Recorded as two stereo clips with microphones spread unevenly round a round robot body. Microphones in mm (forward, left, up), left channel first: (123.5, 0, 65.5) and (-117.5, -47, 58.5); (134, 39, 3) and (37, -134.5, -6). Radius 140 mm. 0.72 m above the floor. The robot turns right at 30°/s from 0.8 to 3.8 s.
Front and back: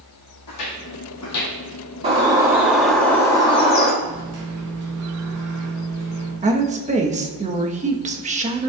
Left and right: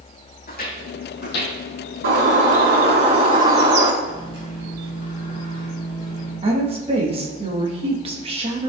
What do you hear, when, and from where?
0.5 s footsteps: 20° left, 2 m; by 1.6 s 50° left, 1.5 m
2.0 s a bird: 105° right, 3.5 m; by 3.9 s 50° right, 3.5 m
4.0 s a microwave: 170° left, 3.5 m
6.4 s a woman speaking: 145° right, 1.1 m